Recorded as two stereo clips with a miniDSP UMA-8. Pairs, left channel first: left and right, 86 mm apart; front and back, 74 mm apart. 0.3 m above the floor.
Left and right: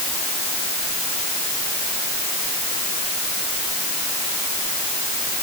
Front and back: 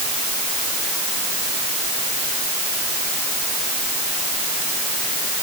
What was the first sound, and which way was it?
Only background noise.